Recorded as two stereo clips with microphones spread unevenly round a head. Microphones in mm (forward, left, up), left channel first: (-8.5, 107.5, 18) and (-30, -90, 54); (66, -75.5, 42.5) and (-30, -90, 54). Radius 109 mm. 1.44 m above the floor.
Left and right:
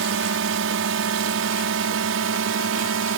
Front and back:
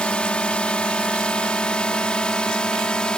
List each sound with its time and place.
0.0 s a drone: 70° right